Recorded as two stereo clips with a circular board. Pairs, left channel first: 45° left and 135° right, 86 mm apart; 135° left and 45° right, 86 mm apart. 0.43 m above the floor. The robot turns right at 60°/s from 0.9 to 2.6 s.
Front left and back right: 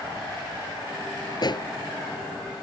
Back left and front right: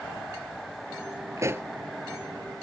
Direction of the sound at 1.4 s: 5° left.